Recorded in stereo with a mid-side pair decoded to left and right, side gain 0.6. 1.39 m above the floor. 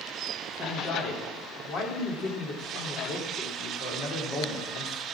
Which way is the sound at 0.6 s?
55° left.